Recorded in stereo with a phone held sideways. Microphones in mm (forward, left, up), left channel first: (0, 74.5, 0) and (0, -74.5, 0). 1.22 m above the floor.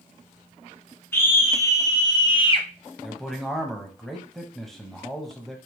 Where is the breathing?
No breathing in this recording.